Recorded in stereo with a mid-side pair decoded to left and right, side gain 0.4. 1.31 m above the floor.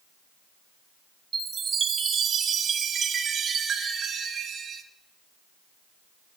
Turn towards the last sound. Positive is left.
turn(degrees=-65)